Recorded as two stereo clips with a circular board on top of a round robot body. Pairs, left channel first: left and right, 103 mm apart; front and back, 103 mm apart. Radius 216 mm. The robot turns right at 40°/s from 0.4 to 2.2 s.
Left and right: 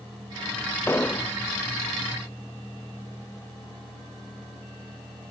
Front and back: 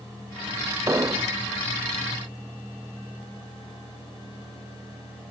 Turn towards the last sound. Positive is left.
turn(degrees=-165)